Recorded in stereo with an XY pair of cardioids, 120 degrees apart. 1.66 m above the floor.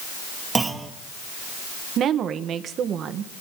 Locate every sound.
0.6 s a clunk: 25° right, 2 m
2.0 s a woman speaking: 55° right, 1.5 m